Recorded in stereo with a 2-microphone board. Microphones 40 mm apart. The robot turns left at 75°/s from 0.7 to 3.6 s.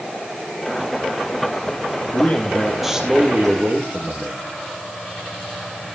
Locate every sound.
2.1 s a man speaking: 50° left, 3.5 m; by 4.4 s 60° right, 3.5 m